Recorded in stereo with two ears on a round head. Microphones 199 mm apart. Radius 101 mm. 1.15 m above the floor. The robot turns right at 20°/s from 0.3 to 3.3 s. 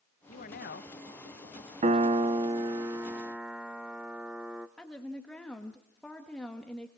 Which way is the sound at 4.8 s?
5° left (ahead or behind).